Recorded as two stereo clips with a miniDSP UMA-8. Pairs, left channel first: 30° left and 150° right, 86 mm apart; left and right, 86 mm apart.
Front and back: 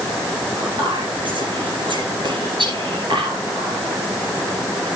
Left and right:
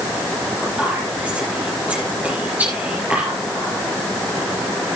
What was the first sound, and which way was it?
Whispering, 160° right.